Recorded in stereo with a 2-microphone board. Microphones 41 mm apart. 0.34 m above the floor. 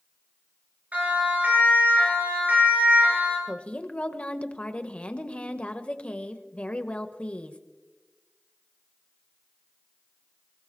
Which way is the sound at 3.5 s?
30° left (ahead or behind).